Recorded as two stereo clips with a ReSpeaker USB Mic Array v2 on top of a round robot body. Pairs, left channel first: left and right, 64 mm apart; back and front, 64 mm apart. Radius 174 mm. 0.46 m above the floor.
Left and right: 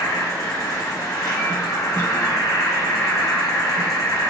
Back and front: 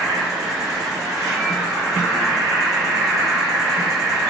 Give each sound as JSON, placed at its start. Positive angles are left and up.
{"t": 0.0, "sound": "an insect", "azimuth_deg": 45, "distance_m": 0.8}